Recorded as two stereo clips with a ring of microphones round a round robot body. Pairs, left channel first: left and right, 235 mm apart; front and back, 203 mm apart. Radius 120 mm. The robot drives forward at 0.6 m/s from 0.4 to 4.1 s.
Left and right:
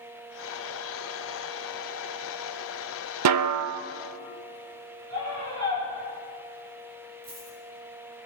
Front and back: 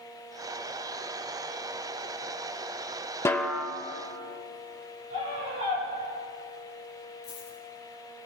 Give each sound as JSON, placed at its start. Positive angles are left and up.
{"t": 3.2, "sound": "a snare drum", "azimuth_deg": -80, "distance_m": 0.6}
{"t": 5.1, "sound": "a scream", "azimuth_deg": -110, "distance_m": 6.5}
{"t": 7.2, "sound": "a dropped coin", "azimuth_deg": -35, "distance_m": 4.0}